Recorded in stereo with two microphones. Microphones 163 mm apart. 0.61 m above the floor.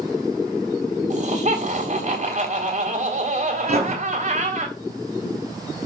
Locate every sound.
1.1 s laughter: 50° right (ahead or behind), 3 m
3.7 s writing: 75° right (ahead or behind), 4.5 m